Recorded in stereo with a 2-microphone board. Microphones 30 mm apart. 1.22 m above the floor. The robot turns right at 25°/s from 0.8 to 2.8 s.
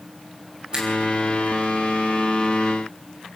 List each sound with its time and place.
0.7 s a finger snap: 25° right (ahead or behind), 5.5 m; by 0.9 s 20° right (ahead or behind), 5.5 m